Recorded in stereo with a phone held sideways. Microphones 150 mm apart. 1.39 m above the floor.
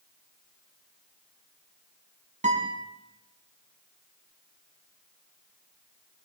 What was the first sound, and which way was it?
A guitar, 60° right (ahead or behind).